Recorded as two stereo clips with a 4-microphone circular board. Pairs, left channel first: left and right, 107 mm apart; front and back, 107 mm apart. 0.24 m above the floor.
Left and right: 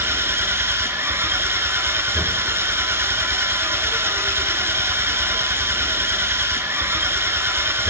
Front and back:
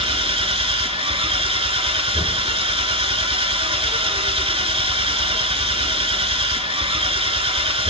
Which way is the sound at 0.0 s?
155° right.